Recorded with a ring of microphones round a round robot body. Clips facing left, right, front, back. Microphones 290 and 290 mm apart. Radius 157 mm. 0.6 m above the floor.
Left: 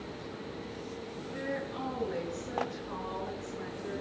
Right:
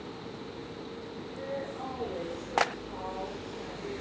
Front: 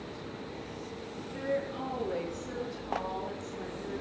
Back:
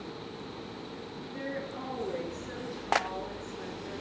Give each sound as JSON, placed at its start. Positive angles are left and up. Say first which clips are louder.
{"t": 1.3, "sound": "a woman speaking", "louder": "left 1 dB, front 4 dB", "azimuth_deg": 90, "distance_m": 8.0}